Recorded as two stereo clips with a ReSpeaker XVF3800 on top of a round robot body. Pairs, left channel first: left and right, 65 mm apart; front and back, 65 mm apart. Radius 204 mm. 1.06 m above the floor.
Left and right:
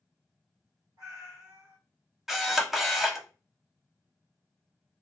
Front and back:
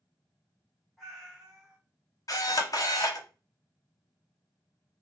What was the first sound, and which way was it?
A cat meowing, 95° right.